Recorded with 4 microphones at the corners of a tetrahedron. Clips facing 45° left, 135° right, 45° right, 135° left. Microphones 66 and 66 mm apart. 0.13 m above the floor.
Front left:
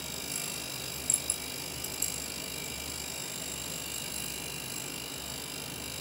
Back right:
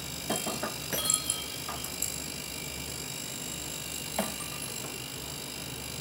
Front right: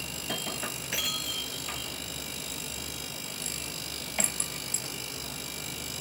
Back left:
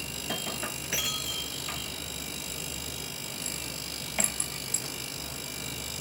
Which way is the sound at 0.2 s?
140° right.